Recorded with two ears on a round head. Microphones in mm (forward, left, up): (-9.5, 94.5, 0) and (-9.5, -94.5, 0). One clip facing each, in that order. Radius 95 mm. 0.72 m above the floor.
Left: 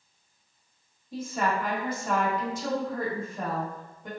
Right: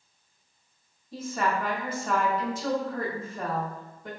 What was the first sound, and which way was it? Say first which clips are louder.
A woman speaking: even; 10° left (ahead or behind).